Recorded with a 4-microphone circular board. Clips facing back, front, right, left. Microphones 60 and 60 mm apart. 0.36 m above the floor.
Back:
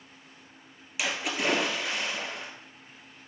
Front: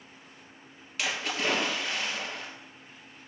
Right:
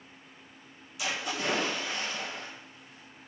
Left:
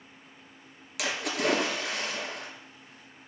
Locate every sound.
1.0 s a splash: 100° left, 1.8 m